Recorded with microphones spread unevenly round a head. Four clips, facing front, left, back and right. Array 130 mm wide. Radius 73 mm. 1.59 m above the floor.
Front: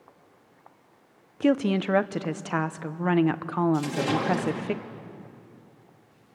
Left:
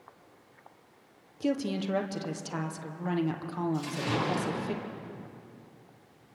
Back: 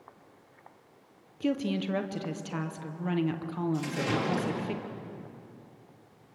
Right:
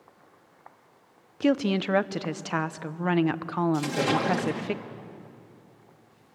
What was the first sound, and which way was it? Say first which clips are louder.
A woman speaking: right 6 dB, front 7 dB; 25° right.